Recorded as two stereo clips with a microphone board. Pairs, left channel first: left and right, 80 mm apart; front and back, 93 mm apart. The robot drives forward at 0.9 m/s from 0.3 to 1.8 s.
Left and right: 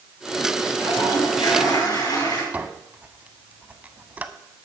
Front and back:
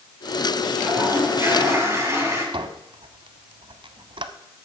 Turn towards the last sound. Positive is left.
turn(degrees=-160)